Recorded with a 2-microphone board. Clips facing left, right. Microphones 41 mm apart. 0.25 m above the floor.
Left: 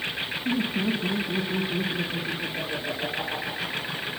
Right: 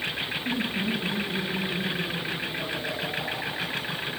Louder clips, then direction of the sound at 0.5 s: Left 4 dB; 35° left (ahead or behind).